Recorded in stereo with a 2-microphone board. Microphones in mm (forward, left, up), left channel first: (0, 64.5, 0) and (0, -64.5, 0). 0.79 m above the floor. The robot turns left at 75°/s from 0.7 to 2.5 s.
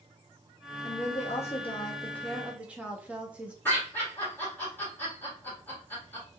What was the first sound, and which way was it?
A woman speaking, 115° left.